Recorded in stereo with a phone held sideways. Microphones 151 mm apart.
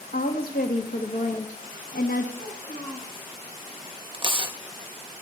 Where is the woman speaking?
70° left (ahead or behind), 1.3 m.